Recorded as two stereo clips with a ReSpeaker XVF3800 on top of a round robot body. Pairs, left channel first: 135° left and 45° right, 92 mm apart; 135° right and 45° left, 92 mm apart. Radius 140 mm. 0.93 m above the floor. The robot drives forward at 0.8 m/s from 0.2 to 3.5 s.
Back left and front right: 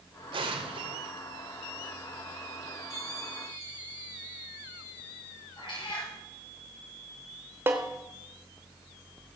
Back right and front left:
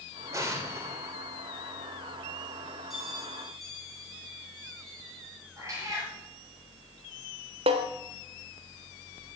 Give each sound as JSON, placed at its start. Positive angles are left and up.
{"t": 0.3, "sound": "an explosion", "azimuth_deg": -15, "distance_m": 2.5}
{"t": 2.9, "sound": "a bell", "azimuth_deg": 130, "distance_m": 6.0}
{"t": 5.6, "sound": "a cat meowing", "azimuth_deg": 100, "distance_m": 6.0}
{"t": 7.7, "sound": "a snare drum", "azimuth_deg": 20, "distance_m": 0.9}